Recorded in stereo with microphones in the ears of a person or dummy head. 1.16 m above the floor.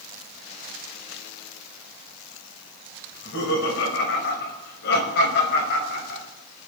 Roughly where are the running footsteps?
No running footsteps in this recording.